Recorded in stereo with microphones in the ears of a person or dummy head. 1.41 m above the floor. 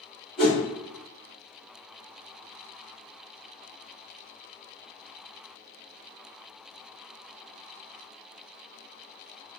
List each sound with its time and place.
0.4 s a whoosh: 25° left (ahead or behind), 1.3 m